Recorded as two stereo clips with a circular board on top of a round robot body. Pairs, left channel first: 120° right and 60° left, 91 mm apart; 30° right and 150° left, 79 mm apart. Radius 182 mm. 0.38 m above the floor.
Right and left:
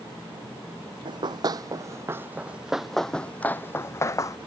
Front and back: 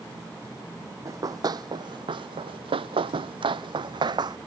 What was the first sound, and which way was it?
Running footsteps, 100° left.